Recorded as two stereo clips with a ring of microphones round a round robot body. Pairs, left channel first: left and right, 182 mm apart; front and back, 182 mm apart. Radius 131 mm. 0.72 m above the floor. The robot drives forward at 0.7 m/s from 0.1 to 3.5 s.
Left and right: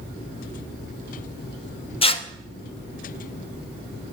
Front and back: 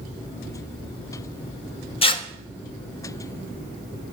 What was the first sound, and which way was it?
Tearing paper, 45° left.